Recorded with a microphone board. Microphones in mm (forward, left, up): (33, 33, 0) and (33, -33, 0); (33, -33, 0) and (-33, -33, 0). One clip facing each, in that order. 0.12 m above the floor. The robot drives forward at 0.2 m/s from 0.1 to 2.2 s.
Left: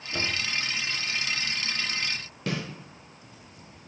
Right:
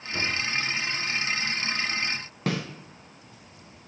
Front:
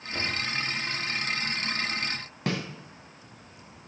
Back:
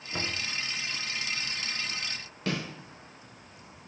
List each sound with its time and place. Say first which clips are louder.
0.1 s knocking: right 2 dB, front 3 dB; straight behind, 0.9 m
2.5 s a snare drum: right 3 dB, front 2 dB; 65° right, 2.5 m